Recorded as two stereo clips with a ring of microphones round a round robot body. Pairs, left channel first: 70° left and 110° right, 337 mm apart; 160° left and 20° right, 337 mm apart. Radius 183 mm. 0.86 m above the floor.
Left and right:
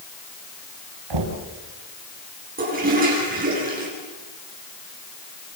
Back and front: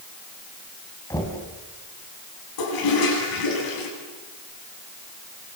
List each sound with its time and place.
1.1 s knocking: 120° right, 4.5 m
2.6 s a toilet flushing: straight behind, 9 m